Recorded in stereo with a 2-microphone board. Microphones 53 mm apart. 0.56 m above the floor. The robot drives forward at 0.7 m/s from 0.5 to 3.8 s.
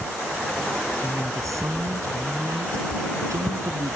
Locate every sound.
1.0 s a man speaking: 80° right; by 4.0 s 70° right (ahead or behind)